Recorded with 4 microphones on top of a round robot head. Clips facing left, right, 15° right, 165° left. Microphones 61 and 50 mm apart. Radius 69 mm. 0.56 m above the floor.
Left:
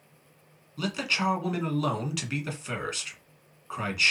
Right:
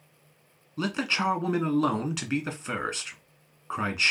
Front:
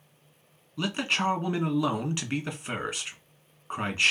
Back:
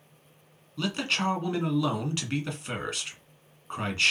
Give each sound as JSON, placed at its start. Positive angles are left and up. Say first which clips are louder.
{"t": 0.8, "sound": "a man speaking", "louder": "right 1 dB, front 1 dB", "azimuth_deg": -85, "distance_m": 1.3}